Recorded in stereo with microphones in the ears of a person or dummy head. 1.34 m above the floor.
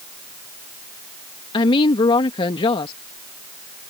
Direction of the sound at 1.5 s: 30° left (ahead or behind).